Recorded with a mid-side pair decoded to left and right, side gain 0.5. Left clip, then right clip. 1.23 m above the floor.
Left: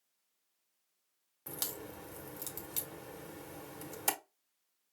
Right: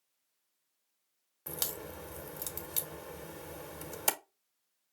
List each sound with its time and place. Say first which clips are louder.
1.5 s a crack: right 3 dB; 25° right, 1.2 m